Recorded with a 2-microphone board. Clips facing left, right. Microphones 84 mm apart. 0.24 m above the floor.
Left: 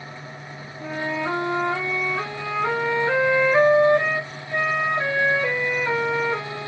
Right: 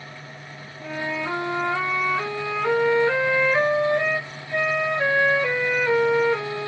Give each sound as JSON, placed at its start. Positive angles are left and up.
{"t": 0.8, "sound": "a flute", "side_deg": 15, "distance_m": 1.0}